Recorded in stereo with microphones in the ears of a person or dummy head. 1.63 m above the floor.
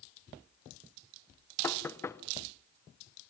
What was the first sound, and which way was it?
Knocking, 10° left (ahead or behind).